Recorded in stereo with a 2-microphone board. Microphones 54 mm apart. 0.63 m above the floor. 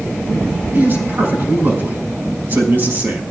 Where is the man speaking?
40° right (ahead or behind), 5 m.